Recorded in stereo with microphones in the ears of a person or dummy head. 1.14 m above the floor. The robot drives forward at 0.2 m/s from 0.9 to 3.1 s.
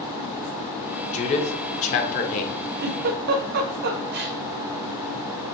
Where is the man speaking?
35° left (ahead or behind), 0.9 m; by 2.5 s 40° left (ahead or behind), 0.8 m.